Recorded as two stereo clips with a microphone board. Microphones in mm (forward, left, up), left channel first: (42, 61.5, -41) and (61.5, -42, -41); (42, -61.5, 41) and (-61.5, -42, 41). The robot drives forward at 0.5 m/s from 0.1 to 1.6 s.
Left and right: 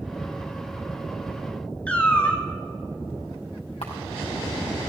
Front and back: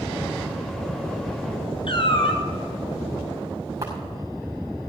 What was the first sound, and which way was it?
A cat meowing, 25° left.